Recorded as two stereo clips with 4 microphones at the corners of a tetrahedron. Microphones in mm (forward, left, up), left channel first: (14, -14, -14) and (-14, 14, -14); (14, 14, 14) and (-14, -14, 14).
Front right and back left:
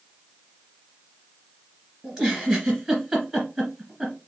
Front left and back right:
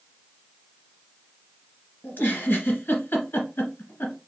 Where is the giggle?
65° left, 1.7 m.